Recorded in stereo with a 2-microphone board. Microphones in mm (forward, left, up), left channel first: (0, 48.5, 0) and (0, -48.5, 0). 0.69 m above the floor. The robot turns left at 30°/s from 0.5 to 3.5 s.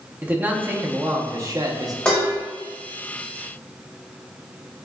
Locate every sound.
0.2 s a man speaking: 25° right, 0.7 m; by 1.9 s 70° right, 0.7 m
2.0 s dishes clattering: 10° left (ahead or behind), 1.4 m; by 2.3 s 20° left (ahead or behind), 1.4 m